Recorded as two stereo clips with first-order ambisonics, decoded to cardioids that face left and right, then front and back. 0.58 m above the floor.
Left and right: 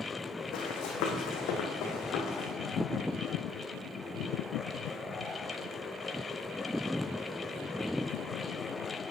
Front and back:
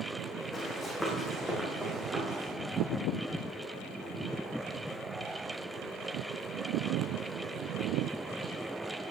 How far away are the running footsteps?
About 2.5 m.